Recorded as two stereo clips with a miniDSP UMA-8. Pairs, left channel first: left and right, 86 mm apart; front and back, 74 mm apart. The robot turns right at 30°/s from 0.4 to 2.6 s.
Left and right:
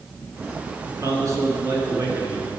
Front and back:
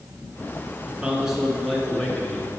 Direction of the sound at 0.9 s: 110° right.